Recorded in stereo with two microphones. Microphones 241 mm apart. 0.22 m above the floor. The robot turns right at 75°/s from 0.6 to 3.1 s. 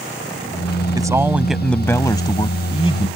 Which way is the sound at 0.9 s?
15° right (ahead or behind).